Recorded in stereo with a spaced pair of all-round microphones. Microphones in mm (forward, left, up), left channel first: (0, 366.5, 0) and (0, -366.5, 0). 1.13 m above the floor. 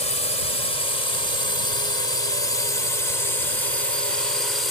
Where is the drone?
70° left (ahead or behind); by 4.7 s 80° left.